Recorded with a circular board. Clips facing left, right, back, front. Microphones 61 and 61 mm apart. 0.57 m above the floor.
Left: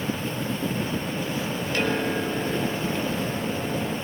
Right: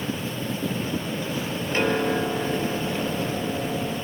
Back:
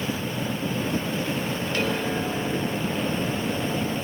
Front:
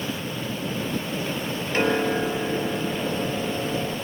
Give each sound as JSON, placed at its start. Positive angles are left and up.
{"t": 1.7, "sound": "a piano", "azimuth_deg": -40, "distance_m": 1.4}